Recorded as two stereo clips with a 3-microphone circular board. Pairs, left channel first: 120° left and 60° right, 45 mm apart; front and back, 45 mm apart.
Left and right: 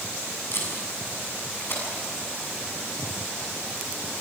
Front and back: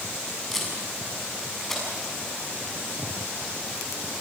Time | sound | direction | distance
0.5 | tape being pulled | 85° left | 6.5 m